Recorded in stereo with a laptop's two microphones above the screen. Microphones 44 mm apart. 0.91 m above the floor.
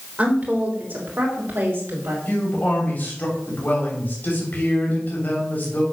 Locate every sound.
0.2 s a woman speaking: 40° right (ahead or behind), 3 m; by 2.2 s 60° right (ahead or behind), 3.5 m
2.3 s a man speaking: 40° left (ahead or behind), 3 m